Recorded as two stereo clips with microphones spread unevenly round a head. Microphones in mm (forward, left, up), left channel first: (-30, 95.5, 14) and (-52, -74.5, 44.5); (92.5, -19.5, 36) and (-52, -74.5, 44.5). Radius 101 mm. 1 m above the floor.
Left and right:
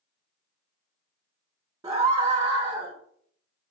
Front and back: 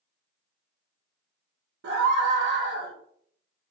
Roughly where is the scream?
Behind.